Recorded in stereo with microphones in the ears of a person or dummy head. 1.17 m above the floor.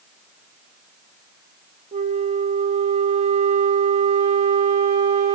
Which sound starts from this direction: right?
A flute, at 1.9 s.